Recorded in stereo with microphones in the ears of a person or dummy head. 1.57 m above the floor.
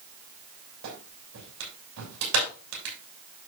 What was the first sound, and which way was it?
A clap, 70° right (ahead or behind).